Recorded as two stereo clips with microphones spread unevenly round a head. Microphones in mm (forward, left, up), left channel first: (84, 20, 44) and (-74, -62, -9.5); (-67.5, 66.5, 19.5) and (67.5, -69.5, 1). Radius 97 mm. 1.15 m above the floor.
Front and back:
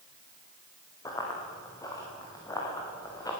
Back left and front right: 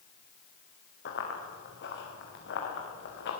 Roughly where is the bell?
No bell in this recording.